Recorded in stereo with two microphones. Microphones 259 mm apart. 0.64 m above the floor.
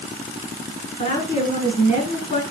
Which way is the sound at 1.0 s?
30° left (ahead or behind).